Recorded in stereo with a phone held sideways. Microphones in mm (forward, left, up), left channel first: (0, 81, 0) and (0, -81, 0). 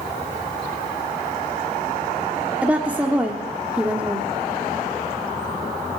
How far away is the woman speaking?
About 1.5 m.